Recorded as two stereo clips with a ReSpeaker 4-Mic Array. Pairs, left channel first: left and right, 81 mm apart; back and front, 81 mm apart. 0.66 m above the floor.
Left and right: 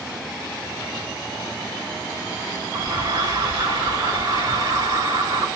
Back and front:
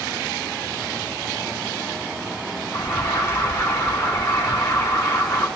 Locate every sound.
2.7 s an alarm: 130° right, 4.5 m